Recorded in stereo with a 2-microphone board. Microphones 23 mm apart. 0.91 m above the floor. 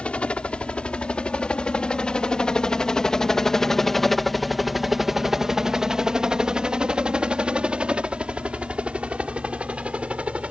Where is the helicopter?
60° left (ahead or behind); by 10.5 s 65° right (ahead or behind).